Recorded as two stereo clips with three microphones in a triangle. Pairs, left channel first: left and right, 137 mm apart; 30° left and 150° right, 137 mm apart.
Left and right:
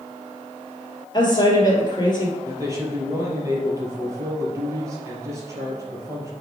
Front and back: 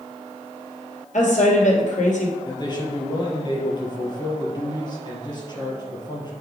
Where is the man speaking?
25° right, 2.5 m.